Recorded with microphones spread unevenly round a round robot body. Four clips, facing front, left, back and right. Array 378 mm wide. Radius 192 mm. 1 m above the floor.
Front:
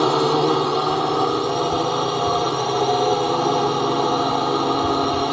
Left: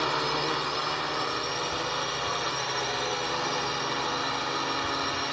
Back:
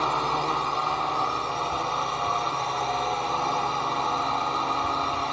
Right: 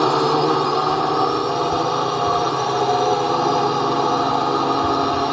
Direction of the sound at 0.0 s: 45° right.